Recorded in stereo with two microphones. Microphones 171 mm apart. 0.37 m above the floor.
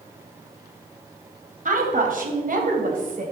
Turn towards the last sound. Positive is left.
turn(degrees=-50)  # may be behind; listen again after turning